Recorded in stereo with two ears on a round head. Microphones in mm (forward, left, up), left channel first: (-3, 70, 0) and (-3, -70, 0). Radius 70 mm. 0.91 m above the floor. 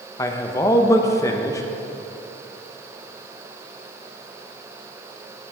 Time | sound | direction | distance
0.2 | a man speaking | 20° left (ahead or behind) | 0.6 m